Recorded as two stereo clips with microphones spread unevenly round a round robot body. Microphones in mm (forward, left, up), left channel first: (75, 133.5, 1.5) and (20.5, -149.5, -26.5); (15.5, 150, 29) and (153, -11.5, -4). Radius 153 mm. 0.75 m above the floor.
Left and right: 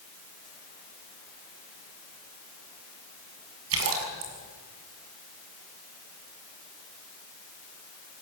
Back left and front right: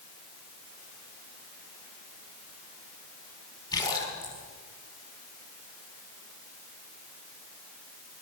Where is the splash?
150° right, 6 m.